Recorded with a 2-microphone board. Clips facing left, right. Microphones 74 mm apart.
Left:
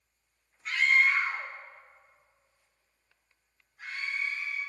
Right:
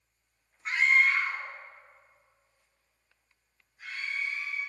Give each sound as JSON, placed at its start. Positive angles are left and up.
{"t": 0.7, "sound": "a scream", "side_deg": -35, "distance_m": 0.9}